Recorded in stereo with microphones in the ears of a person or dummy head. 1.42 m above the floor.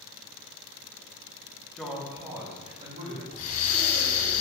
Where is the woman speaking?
5° left (ahead or behind), 0.8 m; by 3.2 s 45° right (ahead or behind), 1.4 m.